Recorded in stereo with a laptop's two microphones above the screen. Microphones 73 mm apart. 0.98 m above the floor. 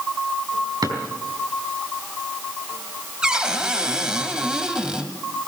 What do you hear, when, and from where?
0.8 s a drawer: 75° right (ahead or behind), 4 m
3.2 s a cupboard door: 10° right (ahead or behind), 1.6 m